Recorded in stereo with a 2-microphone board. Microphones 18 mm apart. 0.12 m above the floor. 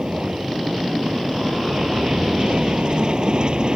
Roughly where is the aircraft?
Right.